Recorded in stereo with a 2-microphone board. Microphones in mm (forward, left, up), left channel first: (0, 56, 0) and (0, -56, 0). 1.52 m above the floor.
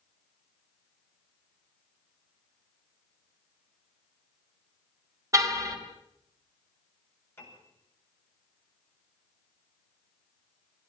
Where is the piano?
20° left (ahead or behind), 8.5 m.